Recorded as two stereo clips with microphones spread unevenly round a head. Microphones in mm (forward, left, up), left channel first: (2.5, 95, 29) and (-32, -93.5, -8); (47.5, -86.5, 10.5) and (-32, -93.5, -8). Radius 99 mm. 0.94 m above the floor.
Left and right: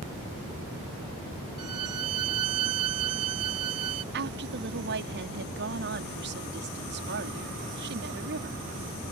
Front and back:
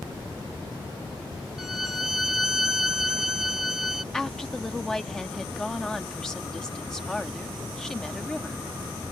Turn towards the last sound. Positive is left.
turn(degrees=-80)